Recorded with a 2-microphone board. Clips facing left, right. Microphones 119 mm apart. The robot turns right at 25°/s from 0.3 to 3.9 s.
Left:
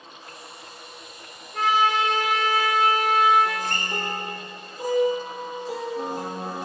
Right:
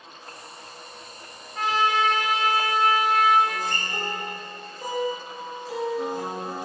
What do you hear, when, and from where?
1.5 s a trumpet: 100° left, 5 m; by 3.4 s 145° left, 5 m
3.5 s a guitar: 65° left (ahead or behind), 3.5 m; by 6.7 s 55° left (ahead or behind), 3.5 m